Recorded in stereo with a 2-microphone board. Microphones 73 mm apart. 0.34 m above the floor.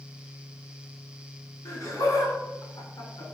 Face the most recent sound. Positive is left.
turn(degrees=55)  # may be behind; listen again after turning